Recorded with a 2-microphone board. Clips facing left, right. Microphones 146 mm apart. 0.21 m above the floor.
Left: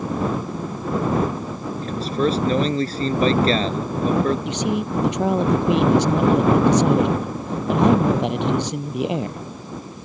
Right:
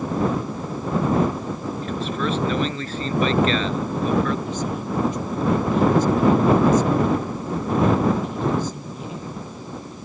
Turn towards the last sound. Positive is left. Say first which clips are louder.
# left 3 dB
turn(degrees=80)